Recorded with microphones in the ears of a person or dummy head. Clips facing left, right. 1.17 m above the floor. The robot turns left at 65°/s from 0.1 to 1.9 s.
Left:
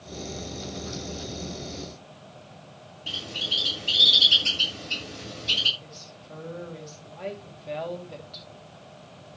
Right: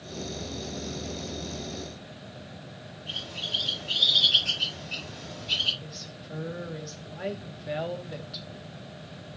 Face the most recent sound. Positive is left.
turn(degrees=-15)  # may be behind; listen again after turning